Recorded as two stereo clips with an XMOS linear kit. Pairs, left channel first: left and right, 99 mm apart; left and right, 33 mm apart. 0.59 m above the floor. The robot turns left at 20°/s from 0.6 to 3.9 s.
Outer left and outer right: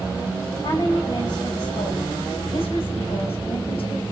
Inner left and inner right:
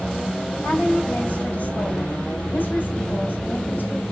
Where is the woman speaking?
135° left, 3.5 m; by 4.0 s 70° left, 3.5 m.